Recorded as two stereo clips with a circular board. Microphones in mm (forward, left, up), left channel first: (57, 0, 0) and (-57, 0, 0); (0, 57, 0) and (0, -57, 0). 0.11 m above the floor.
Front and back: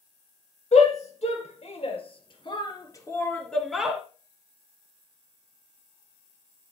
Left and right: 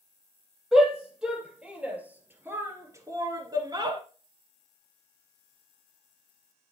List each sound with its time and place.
0.7 s a shout: 5° right, 3.5 m; by 4.0 s 105° right, 1.6 m